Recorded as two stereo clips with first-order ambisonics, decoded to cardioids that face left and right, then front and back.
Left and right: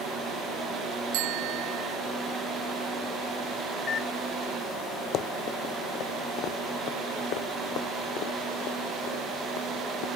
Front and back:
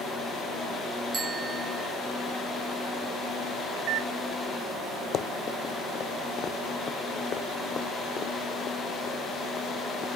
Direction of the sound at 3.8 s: 155° left.